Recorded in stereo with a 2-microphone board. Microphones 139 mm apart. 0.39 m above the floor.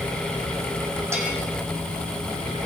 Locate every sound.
1.1 s a bell: 20° right (ahead or behind), 5.5 m